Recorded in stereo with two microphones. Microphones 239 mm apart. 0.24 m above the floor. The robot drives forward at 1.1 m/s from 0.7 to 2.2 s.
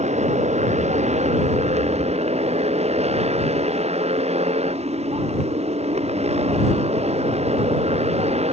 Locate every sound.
0.0 s a motorcycle: 30° right (ahead or behind); by 8.5 s 25° right (ahead or behind)